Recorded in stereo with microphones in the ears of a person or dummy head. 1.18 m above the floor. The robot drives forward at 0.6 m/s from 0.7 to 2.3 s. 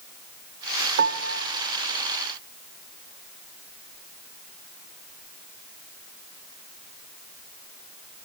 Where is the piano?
55° right (ahead or behind), 0.7 m; by 1.5 s 70° right (ahead or behind), 0.6 m.